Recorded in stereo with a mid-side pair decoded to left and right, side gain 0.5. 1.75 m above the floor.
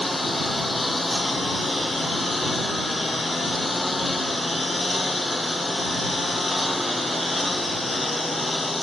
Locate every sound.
0.0 s a lawn mower: 15° left